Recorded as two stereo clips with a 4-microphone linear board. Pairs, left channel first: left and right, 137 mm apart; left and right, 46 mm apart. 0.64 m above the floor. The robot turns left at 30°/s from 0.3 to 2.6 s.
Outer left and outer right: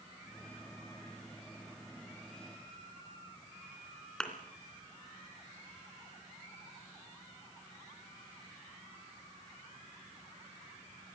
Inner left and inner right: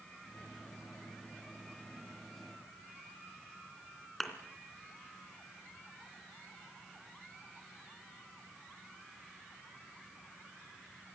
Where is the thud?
5° left (ahead or behind), 3 m.